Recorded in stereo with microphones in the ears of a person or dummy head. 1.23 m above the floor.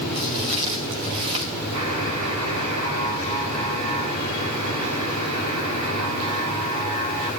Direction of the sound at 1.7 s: 90° right.